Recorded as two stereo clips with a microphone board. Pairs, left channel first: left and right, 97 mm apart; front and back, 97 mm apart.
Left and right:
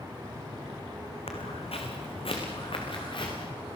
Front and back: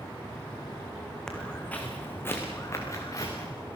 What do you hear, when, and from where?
1.3 s footsteps: 85° left, 3.5 m; by 3.5 s 55° left, 5.5 m